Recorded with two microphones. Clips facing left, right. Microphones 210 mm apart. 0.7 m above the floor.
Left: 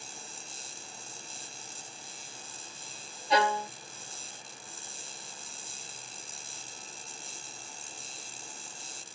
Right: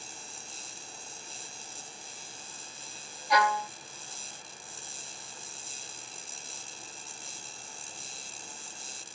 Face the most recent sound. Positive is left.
turn(degrees=25)  # may be behind; listen again after turning